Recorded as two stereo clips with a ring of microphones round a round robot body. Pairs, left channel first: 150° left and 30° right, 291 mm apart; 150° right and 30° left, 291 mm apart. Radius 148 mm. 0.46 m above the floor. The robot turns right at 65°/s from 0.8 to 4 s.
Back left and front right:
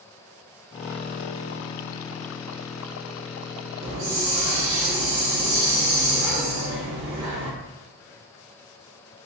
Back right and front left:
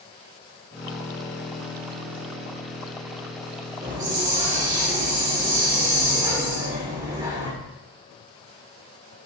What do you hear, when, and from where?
3.8 s a hiss: 60° right, 1.7 m; by 7.5 s 45° right, 1.7 m